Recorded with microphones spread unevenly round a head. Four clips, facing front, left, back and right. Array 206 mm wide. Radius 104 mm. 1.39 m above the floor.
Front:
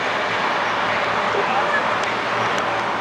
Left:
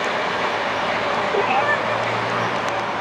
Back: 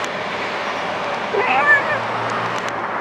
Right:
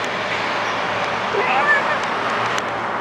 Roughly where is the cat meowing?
Behind.